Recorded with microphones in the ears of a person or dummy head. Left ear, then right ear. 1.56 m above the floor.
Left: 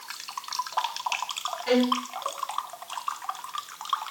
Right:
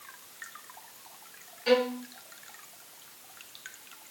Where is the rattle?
No rattle in this recording.